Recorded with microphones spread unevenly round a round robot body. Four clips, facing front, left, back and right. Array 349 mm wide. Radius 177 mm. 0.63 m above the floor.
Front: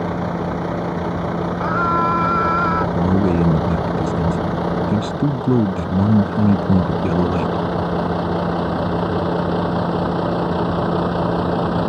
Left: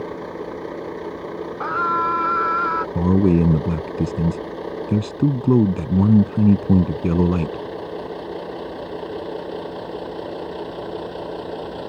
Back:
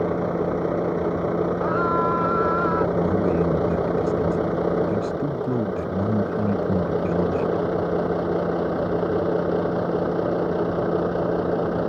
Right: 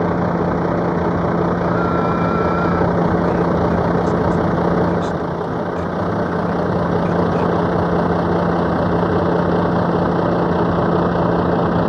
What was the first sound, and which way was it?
A vehicle, 75° right.